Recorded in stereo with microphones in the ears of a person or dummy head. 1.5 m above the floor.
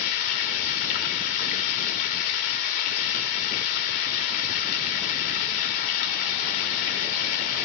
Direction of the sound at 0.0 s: 50° left (ahead or behind).